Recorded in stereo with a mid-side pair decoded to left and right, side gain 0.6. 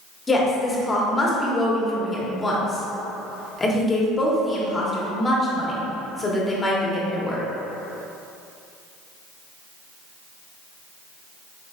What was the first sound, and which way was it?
A woman speaking, 25° left.